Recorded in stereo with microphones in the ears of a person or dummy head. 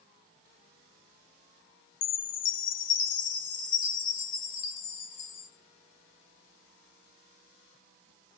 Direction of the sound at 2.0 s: 50° left (ahead or behind).